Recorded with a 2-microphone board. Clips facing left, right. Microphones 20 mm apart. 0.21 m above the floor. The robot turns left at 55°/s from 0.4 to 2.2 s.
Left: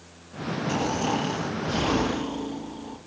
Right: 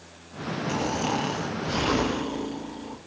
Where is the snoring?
20° right, 4.5 m; by 3.0 s 105° right, 4.5 m.